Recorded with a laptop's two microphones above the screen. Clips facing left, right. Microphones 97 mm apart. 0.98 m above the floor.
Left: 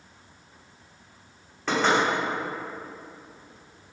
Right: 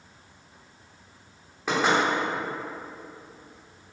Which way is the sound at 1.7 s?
10° right (ahead or behind).